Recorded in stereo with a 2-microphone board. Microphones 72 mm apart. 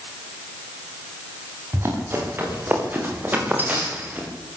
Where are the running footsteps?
35° right (ahead or behind), 9 m; by 4.3 s 25° right (ahead or behind), 7 m.